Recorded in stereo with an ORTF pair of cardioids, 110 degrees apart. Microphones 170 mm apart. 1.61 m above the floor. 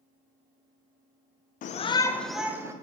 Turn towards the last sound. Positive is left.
turn(degrees=-15)